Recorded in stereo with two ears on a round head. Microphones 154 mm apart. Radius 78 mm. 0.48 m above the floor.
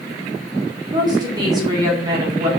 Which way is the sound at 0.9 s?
25° right (ahead or behind).